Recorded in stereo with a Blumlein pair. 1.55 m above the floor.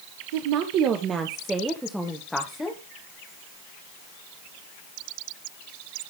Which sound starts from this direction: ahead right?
A woman speaking, at 0.3 s.